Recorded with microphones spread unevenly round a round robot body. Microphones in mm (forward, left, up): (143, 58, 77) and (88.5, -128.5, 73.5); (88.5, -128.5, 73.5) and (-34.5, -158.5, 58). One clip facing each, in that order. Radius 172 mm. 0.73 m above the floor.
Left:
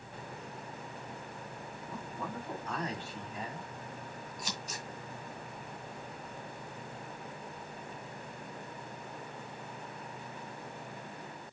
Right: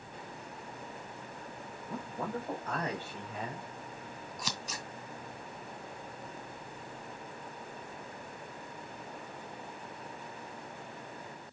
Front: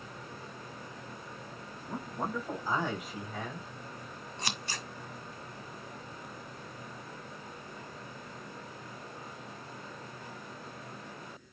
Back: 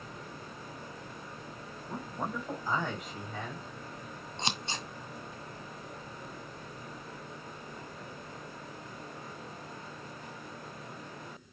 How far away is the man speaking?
About 4.5 m.